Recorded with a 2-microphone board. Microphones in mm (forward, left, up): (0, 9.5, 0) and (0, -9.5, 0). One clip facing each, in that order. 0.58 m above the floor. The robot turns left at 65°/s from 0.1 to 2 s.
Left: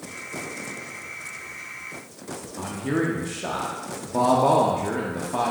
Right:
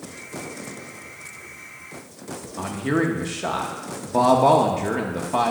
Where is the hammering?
No hammering in this recording.